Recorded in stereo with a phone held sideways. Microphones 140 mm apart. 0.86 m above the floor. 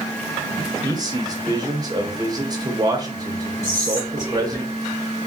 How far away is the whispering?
About 2 m.